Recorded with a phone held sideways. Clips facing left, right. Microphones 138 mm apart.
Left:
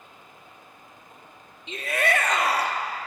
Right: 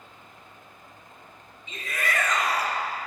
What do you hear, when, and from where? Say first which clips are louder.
0.0 s a fan: even; 15° left (ahead or behind), 2.5 m
1.7 s a shout: left 6 dB; 70° left (ahead or behind), 1.2 m